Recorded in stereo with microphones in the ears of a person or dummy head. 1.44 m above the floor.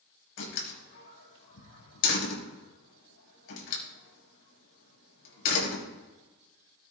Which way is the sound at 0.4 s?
75° left (ahead or behind).